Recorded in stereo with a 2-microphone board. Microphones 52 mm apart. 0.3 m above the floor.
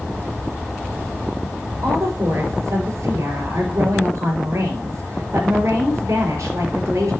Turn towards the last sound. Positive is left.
turn(degrees=-75)  # may be behind; listen again after turning